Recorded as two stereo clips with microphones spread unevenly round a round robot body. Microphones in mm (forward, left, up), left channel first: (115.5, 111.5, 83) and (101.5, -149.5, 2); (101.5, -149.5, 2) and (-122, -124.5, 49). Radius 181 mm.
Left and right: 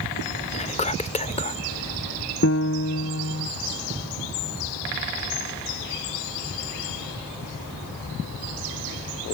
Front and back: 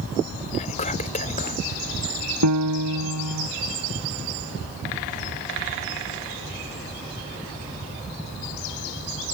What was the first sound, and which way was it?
Whispering, 10° left.